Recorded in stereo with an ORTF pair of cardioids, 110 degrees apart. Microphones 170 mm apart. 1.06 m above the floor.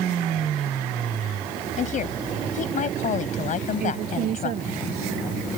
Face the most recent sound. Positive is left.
turn(degrees=-60)